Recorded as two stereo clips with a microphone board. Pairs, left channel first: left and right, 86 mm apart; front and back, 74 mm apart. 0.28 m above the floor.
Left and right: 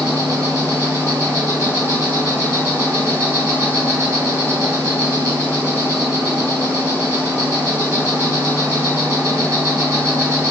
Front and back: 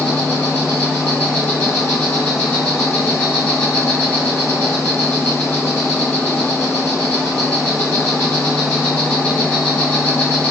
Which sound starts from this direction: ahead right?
An insect, at 0.0 s.